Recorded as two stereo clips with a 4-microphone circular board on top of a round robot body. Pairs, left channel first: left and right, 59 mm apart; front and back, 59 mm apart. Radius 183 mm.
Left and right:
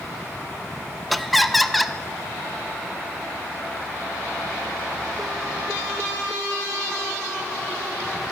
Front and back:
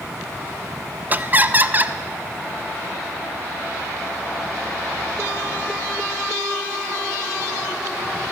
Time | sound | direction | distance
1.1 | laughter | straight behind | 0.7 m